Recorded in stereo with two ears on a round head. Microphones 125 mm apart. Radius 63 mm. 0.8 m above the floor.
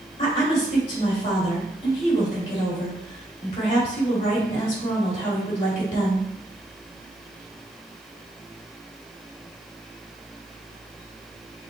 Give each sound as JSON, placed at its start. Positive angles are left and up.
{"t": 0.2, "sound": "a woman speaking", "side_deg": 40, "distance_m": 2.5}